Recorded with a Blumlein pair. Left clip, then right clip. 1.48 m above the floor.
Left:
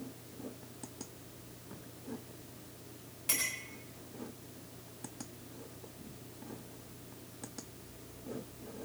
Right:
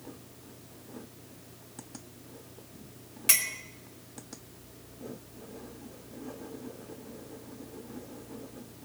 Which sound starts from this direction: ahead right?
A clink, at 3.3 s.